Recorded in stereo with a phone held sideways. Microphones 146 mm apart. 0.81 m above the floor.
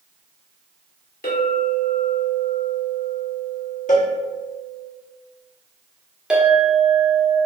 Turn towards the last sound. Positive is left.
turn(degrees=-5)  # may be behind; listen again after turning